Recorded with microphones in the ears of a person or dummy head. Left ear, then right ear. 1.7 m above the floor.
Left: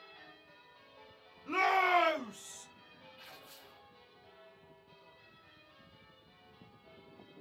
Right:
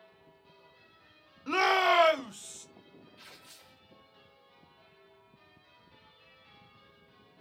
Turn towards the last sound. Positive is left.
turn(degrees=-55)  # may be behind; listen again after turning